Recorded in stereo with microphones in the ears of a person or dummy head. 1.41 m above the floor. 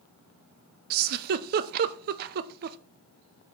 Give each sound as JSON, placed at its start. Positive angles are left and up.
{"t": 0.9, "sound": "a giggle", "side_deg": -55, "distance_m": 0.6}